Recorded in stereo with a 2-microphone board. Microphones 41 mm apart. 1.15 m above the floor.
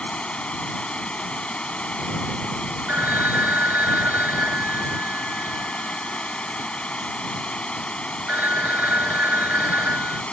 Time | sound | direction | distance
0.0 | running water | 30° left (ahead or behind) | ?
2.9 | a phone ringing | 40° right (ahead or behind) | ?